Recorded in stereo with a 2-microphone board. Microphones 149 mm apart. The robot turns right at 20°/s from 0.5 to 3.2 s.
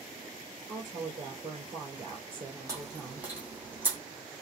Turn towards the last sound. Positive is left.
turn(degrees=-10)  # may be behind; listen again after turning